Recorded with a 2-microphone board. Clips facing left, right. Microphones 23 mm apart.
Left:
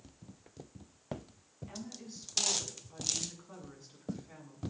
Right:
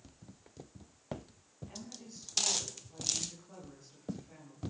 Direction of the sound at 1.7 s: 25° left (ahead or behind).